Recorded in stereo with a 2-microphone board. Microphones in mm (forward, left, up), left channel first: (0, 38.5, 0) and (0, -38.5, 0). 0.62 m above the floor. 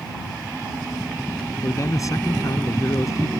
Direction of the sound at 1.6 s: 45° left (ahead or behind).